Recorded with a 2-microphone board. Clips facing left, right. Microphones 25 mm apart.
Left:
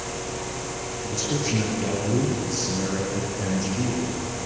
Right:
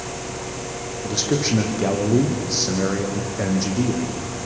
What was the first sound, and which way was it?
A man speaking, 50° right (ahead or behind).